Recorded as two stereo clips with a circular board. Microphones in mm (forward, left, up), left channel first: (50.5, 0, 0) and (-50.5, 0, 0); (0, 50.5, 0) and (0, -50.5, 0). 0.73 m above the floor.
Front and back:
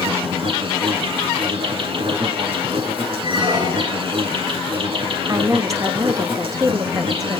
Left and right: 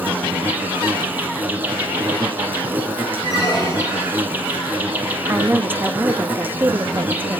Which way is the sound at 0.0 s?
160° right.